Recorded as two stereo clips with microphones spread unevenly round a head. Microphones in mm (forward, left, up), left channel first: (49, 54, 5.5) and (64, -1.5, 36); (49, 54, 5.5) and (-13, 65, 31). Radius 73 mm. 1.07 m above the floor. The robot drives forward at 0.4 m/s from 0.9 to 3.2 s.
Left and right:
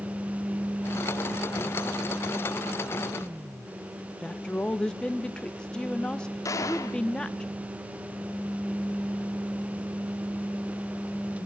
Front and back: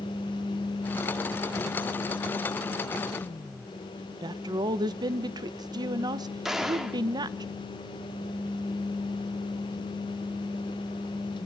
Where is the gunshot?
85° left, 2.5 m.